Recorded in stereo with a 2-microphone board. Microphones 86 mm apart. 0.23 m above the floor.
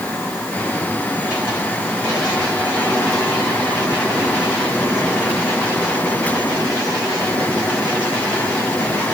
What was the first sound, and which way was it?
Only background noise.